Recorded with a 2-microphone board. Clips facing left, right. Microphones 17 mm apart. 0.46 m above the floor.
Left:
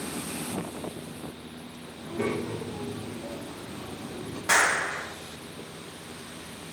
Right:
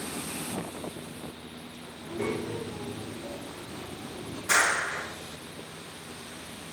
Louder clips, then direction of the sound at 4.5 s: Left 2 dB; 60° left (ahead or behind).